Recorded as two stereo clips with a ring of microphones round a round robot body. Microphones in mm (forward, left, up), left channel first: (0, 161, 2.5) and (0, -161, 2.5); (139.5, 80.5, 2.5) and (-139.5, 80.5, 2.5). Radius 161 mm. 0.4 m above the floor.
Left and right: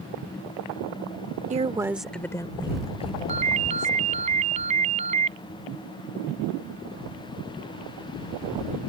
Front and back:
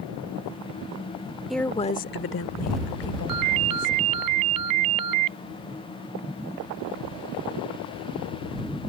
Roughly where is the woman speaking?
Right.